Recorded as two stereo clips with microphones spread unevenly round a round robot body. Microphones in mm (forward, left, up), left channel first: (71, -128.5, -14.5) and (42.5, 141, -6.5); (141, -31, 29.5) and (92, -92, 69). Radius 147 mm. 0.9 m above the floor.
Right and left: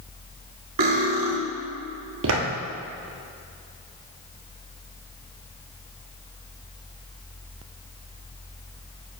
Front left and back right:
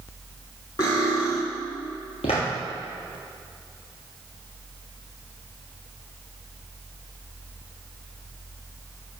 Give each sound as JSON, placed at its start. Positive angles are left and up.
{"t": 0.8, "sound": "cutlery clinking", "azimuth_deg": 105, "distance_m": 1.4}
{"t": 2.2, "sound": "footsteps", "azimuth_deg": 85, "distance_m": 1.3}